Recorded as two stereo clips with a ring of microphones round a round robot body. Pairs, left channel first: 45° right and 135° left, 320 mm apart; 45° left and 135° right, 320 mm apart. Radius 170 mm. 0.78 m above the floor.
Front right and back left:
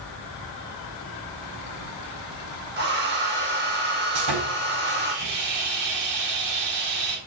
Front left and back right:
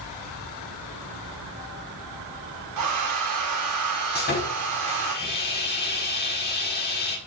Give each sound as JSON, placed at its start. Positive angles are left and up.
{"t": 2.8, "sound": "a hair dryer", "azimuth_deg": -170, "distance_m": 3.0}
{"t": 4.2, "sound": "sawing", "azimuth_deg": 105, "distance_m": 4.5}